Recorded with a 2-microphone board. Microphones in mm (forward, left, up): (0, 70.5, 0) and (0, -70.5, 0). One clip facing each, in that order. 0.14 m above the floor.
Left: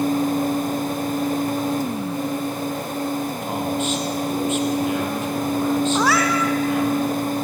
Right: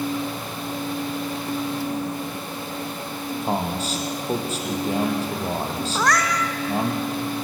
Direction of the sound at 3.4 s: 40° right (ahead or behind).